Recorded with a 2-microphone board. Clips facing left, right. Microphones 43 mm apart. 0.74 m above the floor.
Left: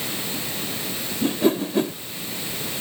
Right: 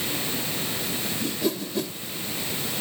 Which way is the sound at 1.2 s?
35° left (ahead or behind).